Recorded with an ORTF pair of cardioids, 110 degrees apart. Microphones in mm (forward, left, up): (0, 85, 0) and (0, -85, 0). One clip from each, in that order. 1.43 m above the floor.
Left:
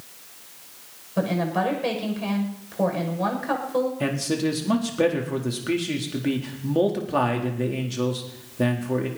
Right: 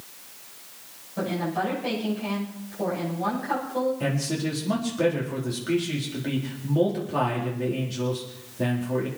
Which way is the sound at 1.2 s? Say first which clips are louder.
Left 3 dB; 55° left.